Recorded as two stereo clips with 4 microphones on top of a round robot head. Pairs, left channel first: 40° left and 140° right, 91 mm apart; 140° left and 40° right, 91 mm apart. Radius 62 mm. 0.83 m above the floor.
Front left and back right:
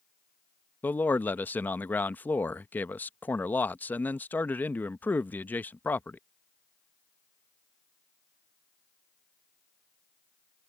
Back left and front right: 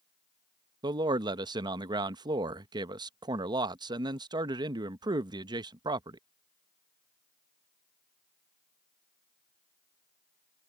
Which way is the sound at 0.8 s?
25° right.